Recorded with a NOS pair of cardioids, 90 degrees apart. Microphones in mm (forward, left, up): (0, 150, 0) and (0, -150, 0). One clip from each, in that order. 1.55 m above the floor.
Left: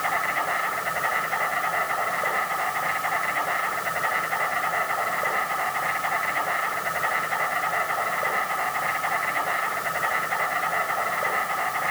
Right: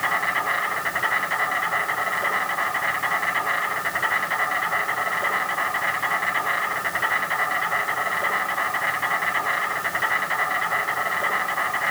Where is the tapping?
No tapping in this recording.